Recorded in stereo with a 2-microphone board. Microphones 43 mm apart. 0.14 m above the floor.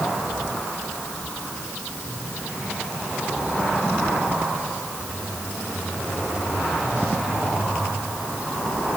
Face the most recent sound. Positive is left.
No sound to turn to.